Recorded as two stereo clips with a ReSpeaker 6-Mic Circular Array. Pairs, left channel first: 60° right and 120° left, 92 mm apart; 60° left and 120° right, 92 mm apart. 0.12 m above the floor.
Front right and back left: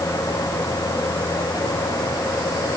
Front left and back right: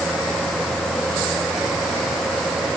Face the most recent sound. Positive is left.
No sound to turn to.